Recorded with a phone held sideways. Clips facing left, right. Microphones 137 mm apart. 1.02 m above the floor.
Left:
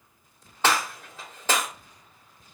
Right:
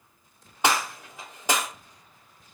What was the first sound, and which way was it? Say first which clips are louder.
A gunshot: even; 15° right (ahead or behind).